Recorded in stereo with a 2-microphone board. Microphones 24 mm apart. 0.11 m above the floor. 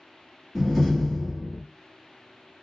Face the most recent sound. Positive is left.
turn(degrees=-5)  # may be behind; listen again after turning